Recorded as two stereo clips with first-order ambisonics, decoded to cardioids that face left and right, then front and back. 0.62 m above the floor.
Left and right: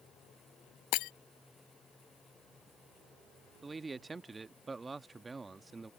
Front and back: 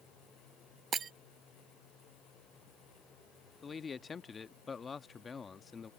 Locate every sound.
0.9 s breaking glass: 115° left
3.6 s a man speaking: 35° right